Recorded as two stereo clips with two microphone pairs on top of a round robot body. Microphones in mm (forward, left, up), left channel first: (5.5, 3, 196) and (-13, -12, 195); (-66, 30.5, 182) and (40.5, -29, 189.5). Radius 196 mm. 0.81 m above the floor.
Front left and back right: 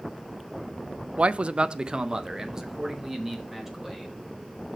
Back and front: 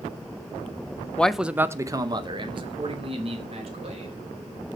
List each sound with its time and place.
1.2 s a man speaking: 135° right, 0.6 m; by 4.1 s 70° right, 2.0 m